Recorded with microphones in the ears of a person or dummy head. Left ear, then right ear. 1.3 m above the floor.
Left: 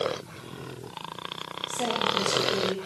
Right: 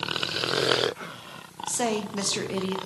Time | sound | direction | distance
1.7 | a woman speaking | 50° right (ahead or behind) | 0.6 m